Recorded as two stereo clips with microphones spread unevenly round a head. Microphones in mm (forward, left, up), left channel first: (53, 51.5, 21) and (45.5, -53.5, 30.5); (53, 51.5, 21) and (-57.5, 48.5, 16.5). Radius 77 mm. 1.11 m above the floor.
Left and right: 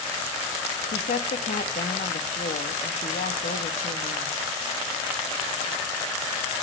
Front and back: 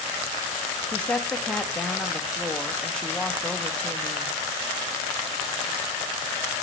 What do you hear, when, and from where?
0.9 s a woman speaking: 85° left, 1.7 m